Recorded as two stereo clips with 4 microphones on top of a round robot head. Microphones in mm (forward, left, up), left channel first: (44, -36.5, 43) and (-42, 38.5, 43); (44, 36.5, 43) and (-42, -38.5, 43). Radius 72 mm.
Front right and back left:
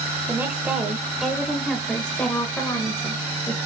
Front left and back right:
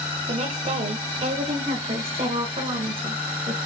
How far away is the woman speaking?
About 1.9 m.